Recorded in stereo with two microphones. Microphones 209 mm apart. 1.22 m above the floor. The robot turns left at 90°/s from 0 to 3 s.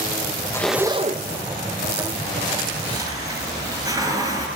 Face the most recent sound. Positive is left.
turn(degrees=-15)  # may be behind; listen again after turning